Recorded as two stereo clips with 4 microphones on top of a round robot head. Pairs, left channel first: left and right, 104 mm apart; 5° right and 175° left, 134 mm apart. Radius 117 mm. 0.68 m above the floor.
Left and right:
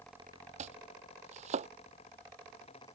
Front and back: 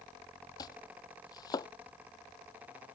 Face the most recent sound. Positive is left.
turn(degrees=-70)